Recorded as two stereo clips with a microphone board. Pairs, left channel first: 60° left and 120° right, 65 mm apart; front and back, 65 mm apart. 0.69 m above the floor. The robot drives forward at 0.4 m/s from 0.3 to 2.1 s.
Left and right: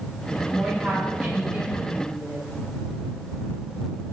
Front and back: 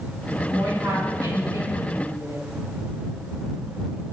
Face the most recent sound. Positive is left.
turn(degrees=175)